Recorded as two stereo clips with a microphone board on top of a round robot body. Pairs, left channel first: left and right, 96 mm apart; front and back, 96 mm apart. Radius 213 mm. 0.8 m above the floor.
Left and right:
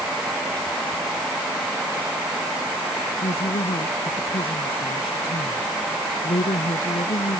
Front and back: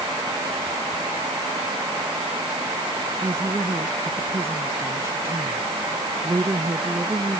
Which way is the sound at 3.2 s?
115° left.